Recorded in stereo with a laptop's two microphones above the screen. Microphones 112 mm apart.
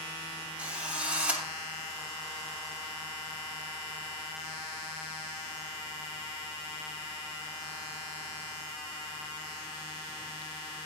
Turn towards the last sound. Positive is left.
turn(degrees=-10)  # may be behind; listen again after turning